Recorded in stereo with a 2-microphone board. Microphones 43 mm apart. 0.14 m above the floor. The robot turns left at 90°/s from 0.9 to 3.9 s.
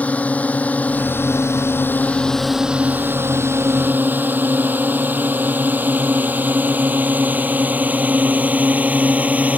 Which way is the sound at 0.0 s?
30° left (ahead or behind).